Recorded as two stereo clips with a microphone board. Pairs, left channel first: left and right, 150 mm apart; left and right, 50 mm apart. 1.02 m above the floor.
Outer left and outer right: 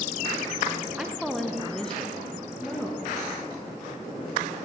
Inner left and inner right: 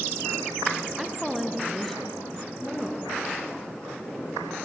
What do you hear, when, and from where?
1.0 s a woman speaking: 5° right (ahead or behind), 0.7 m; by 3.1 s 10° left (ahead or behind), 1.6 m